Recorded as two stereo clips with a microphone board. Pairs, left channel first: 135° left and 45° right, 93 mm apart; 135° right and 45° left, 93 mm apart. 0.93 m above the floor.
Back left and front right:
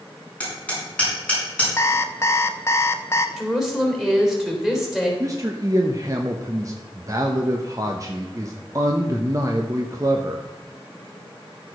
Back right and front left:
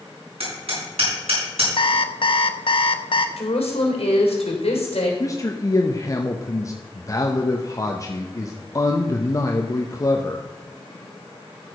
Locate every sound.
0.4 s hammering: 60° left, 5 m
1.8 s an alarm clock: 160° right, 0.7 m
3.4 s a woman speaking: 130° right, 3 m
5.2 s a man speaking: 90° right, 0.9 m